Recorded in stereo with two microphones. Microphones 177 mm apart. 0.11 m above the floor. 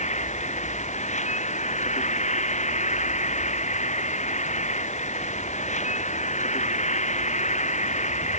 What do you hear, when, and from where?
0.0 s an insect: 40° left (ahead or behind)